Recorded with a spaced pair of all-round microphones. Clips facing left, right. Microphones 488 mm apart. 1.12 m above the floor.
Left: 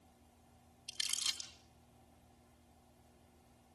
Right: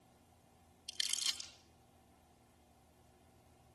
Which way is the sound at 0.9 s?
25° left (ahead or behind).